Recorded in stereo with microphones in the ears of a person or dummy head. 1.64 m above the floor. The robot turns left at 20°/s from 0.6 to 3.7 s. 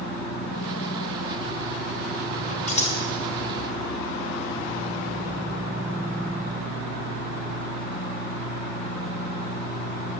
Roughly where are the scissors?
Left.